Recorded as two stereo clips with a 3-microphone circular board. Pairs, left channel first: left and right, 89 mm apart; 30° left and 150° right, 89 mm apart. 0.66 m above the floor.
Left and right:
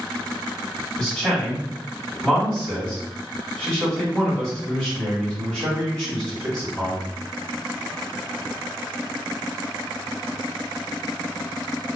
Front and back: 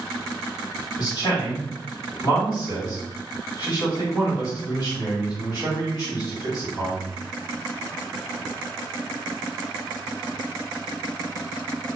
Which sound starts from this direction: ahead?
A man speaking, at 1.0 s.